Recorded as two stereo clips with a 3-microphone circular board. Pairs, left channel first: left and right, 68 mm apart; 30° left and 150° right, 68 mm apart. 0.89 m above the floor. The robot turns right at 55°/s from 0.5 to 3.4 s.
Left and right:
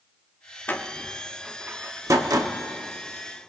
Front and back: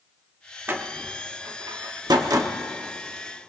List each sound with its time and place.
0.7 s a door slam: 150° left, 1.0 m; by 2.5 s 105° right, 1.0 m